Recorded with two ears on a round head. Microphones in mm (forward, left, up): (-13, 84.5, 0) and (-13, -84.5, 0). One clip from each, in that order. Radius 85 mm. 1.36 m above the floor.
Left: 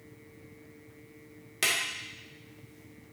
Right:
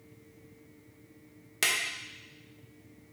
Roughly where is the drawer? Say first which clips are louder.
Even; centre.